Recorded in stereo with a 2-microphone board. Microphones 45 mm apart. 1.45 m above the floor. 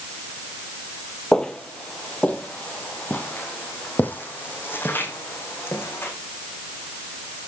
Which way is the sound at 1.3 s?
15° left (ahead or behind).